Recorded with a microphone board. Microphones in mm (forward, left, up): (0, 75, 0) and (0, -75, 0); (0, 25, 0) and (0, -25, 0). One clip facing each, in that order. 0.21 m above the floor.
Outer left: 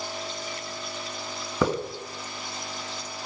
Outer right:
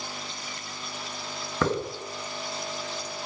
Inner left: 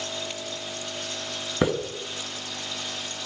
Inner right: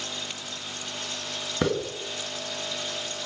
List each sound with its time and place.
1.6 s a hiss: 10° left (ahead or behind), 1.7 m